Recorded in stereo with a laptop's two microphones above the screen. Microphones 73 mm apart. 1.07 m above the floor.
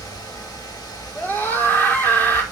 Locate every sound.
0.0 s a fan: 65° left (ahead or behind), 2 m
1.1 s a scream: 30° left (ahead or behind), 3 m